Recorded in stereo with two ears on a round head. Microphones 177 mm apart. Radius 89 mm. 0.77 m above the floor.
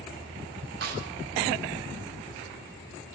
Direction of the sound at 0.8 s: 55° right (ahead or behind).